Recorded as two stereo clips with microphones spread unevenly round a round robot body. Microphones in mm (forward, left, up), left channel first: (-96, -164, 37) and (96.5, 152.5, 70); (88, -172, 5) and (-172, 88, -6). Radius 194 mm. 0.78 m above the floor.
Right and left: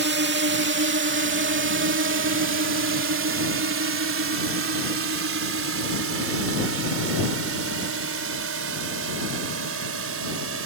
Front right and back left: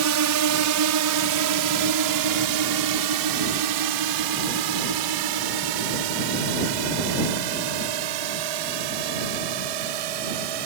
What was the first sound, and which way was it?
A drone, 115° left.